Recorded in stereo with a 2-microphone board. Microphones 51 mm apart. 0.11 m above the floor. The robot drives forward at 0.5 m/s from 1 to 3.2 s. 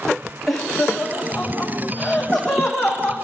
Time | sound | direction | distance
0.5 | laughter | centre (ahead or behind) | 8 m